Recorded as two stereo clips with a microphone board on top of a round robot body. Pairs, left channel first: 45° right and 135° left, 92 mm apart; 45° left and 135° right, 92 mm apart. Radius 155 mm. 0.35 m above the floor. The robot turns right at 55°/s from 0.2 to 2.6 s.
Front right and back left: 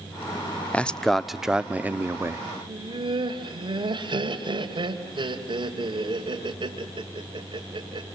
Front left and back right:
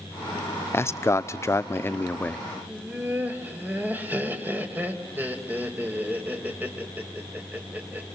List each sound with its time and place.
0.7 s a man speaking: 20° left, 0.8 m; by 2.5 s 115° left, 0.8 m
2.7 s laughter: 155° left, 3 m